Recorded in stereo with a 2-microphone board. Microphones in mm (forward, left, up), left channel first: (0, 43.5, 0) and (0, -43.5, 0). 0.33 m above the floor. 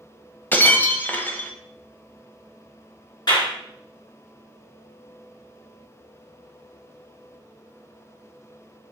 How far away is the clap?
About 3.5 m.